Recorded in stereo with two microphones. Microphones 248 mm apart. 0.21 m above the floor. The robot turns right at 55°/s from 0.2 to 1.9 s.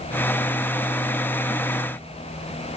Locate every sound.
Only background noise.